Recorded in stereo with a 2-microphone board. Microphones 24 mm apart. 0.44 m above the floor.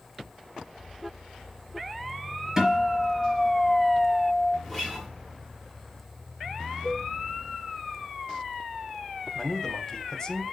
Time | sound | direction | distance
2.6 | a guitar | 15° right (ahead or behind) | 3 m
4.6 | a guitar | 10° left (ahead or behind) | 4 m
6.8 | a cowbell | 25° left (ahead or behind) | 3.5 m
9.3 | a man speaking | 20° left (ahead or behind) | 0.9 m